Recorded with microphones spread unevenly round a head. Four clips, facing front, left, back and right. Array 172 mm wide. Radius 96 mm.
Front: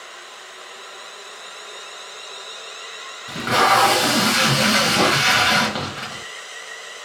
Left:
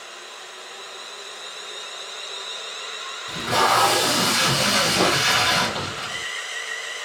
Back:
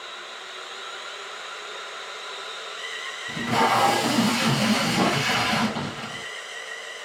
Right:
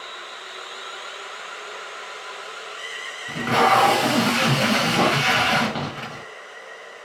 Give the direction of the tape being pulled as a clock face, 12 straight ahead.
1 o'clock.